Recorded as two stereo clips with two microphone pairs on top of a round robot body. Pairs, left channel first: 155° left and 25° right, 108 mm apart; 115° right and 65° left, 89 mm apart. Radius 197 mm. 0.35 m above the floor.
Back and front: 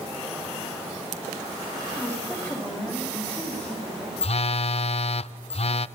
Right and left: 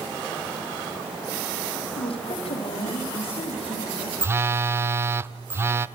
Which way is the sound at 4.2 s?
125° left.